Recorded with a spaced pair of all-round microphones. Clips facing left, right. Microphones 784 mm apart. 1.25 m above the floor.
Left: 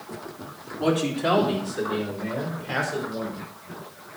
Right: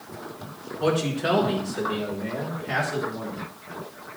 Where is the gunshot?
I don't hear a gunshot.